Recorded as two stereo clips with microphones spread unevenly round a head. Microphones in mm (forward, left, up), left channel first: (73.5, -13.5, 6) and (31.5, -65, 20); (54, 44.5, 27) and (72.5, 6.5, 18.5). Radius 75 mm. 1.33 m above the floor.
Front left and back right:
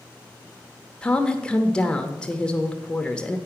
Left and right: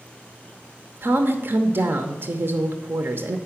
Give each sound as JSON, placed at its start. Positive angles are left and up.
{"t": 1.0, "sound": "a woman speaking", "azimuth_deg": -30, "distance_m": 0.7}